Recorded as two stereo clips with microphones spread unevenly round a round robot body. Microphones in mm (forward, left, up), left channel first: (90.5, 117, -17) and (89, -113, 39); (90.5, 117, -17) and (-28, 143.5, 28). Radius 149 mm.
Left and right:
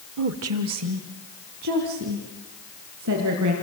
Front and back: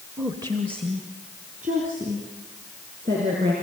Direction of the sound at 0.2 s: 100° right.